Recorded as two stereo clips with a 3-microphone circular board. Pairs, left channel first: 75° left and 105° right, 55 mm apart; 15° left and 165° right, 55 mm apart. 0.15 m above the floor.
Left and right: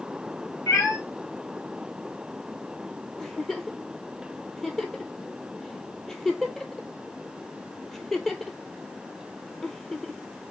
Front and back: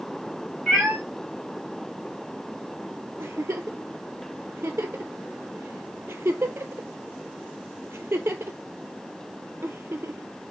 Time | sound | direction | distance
0.7 | a cat meowing | 105° left | 1.7 m
3.2 | a giggle | 160° left | 0.5 m